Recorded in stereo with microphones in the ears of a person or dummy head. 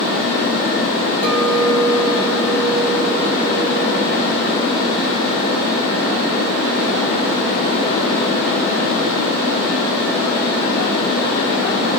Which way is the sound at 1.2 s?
65° right (ahead or behind).